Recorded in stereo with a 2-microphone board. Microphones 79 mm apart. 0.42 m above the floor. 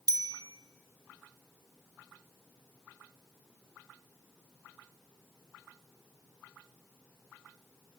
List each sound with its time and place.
0.1 s a bicycle bell: 50° right (ahead or behind), 2 m